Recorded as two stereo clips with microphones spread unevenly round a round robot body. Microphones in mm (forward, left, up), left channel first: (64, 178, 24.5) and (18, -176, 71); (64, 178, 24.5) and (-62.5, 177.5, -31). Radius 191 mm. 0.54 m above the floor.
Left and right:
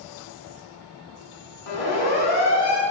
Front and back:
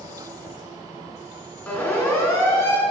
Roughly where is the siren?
Left.